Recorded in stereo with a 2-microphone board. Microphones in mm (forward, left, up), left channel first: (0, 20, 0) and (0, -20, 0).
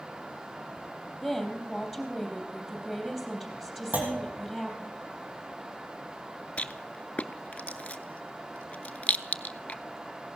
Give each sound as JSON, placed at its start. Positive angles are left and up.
{"t": 1.2, "sound": "a woman speaking", "side_deg": -5, "distance_m": 3.0}
{"t": 3.9, "sound": "a clunk", "side_deg": -50, "distance_m": 3.0}
{"t": 6.6, "sound": "a rattle", "side_deg": 40, "distance_m": 0.5}